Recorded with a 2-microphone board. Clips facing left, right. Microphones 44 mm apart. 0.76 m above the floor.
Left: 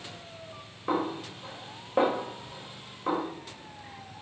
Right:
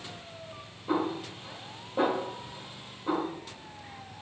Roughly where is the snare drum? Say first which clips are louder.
Even; left.